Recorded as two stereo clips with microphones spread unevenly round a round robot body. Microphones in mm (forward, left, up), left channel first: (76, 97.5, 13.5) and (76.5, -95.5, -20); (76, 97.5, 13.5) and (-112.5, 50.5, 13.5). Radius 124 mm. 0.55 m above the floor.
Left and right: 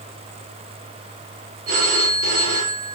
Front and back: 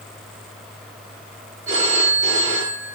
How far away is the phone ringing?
About 5.5 m.